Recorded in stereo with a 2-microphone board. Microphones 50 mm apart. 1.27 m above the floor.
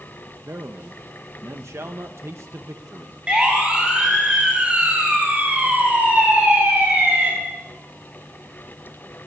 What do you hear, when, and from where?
0.5 s a man speaking: 75° right (ahead or behind), 0.9 m
3.3 s a siren: 20° right (ahead or behind), 7.5 m; by 7.3 s 35° right (ahead or behind), 10 m